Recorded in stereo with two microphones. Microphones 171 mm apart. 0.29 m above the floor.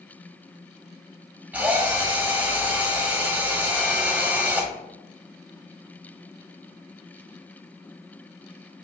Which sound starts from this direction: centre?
A drill, at 1.5 s.